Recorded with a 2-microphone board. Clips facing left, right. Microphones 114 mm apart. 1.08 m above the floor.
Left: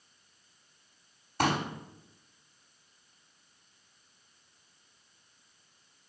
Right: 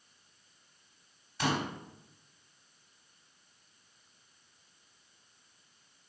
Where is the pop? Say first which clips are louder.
Left 3 dB; 50° left (ahead or behind), 4 m.